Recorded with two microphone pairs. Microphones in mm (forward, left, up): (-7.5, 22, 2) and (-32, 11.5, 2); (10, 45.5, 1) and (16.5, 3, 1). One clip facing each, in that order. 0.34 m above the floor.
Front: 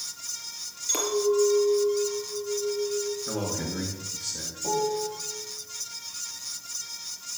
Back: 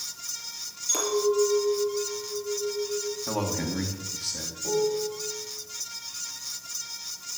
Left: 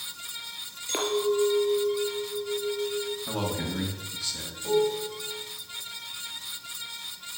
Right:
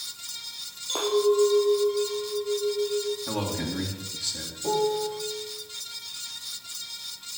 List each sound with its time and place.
0.9 s a clink: 100° left, 4 m
3.3 s a man speaking: 175° right, 3 m
4.6 s a piano: 30° right, 0.9 m